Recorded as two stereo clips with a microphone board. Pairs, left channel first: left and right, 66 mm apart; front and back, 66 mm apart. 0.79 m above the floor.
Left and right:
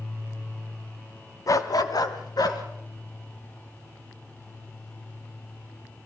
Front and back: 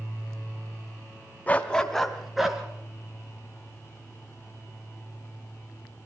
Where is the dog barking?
65° left, 1.3 m; by 2.6 s 100° left, 2.5 m.